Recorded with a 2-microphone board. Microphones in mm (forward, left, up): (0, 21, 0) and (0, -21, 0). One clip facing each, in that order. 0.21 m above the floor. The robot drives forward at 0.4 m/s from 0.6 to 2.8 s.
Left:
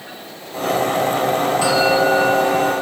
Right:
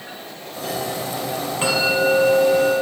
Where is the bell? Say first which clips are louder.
Left 1 dB; 35° right (ahead or behind), 3.5 m.